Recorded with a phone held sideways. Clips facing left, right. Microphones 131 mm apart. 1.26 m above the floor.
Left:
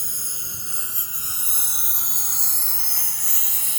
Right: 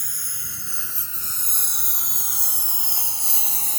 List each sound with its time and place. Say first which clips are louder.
0.0 s a lawn mower: left 1 dB; 25° left (ahead or behind); by 3.8 s 40° right (ahead or behind)